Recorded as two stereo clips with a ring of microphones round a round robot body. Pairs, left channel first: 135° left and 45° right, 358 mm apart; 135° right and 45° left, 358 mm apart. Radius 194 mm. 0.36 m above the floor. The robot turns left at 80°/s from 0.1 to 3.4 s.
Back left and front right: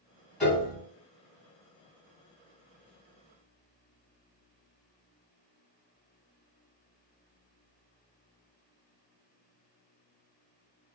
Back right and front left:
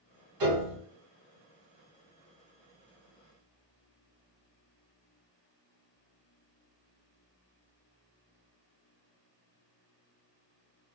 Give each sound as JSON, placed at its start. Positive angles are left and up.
{"t": 0.4, "sound": "a piano", "azimuth_deg": 50, "distance_m": 1.6}